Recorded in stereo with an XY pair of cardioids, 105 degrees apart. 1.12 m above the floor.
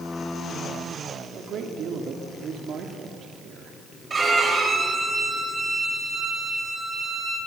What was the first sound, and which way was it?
A man speaking, 65° right.